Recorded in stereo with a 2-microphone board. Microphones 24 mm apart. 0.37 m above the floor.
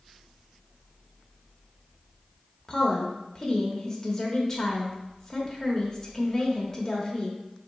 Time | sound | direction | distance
2.7 | a woman speaking | 25° left (ahead or behind) | 1.1 m